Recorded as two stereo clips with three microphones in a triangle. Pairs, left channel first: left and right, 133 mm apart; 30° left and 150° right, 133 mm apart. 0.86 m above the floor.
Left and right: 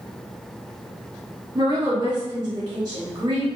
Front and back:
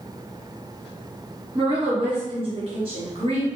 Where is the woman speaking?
130° right, 1.3 m.